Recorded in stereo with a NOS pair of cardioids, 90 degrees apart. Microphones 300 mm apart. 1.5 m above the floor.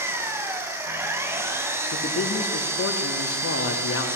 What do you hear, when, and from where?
0.0 s an engine running: 10° right, 4.5 m
1.9 s a man speaking: 50° left, 3.5 m